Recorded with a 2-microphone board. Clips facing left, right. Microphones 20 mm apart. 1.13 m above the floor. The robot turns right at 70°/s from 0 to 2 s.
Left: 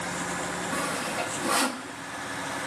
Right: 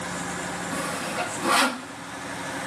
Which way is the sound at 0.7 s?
10° left (ahead or behind).